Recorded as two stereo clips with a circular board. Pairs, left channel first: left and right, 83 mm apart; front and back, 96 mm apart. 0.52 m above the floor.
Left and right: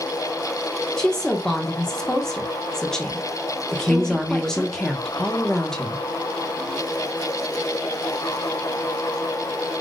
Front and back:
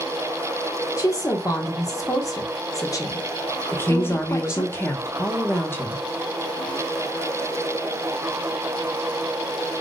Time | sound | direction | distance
1.0 | a woman speaking | 10° left | 0.8 m
3.7 | a woman speaking | 20° left | 0.8 m